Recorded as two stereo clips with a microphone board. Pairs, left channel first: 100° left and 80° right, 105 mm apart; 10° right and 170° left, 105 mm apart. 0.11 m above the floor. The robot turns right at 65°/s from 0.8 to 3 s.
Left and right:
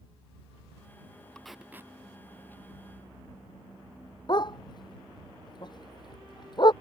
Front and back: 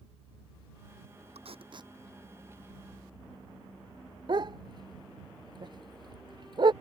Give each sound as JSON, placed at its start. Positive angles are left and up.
{"t": 1.4, "sound": "tape being pulled", "azimuth_deg": 180}
{"t": 4.3, "sound": "a dog barking", "azimuth_deg": 135}